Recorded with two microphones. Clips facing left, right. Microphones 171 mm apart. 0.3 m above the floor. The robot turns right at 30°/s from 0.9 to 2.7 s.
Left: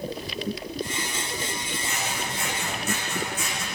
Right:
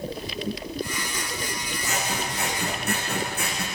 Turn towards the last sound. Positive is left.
turn(degrees=-60)  # may be behind; listen again after turning